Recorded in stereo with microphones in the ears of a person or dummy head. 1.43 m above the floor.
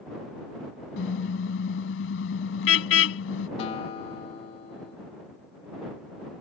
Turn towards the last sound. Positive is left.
turn(degrees=35)  # may be behind; listen again after turning